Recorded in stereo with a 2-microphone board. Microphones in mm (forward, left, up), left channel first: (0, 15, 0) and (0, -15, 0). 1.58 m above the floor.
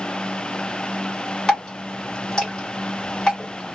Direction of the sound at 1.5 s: 25° left (ahead or behind).